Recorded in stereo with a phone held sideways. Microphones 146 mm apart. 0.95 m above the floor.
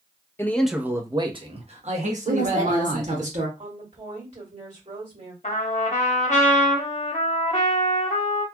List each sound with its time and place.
0.4 s a man speaking: 15° left (ahead or behind), 0.6 m; by 3.2 s 70° right (ahead or behind), 1.8 m
2.2 s a woman speaking: 55° right (ahead or behind), 1.5 m
3.6 s a woman speaking: 50° right (ahead or behind), 1.8 m
5.4 s a trumpet: 55° left (ahead or behind), 1.0 m